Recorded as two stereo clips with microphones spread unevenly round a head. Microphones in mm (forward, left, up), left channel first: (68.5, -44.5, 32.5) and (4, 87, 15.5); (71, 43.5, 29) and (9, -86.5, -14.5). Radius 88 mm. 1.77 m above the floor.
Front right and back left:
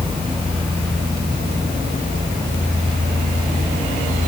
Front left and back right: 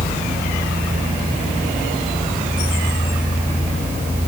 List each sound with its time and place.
Only background noise.